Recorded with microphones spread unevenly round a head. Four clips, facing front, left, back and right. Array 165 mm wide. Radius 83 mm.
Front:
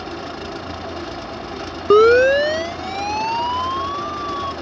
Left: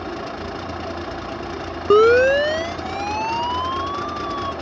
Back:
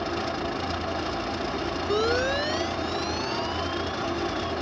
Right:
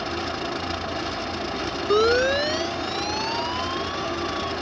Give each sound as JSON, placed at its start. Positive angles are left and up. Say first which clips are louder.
{"t": 1.9, "sound": "a siren", "louder": "left 7 dB, front 15 dB", "azimuth_deg": 20}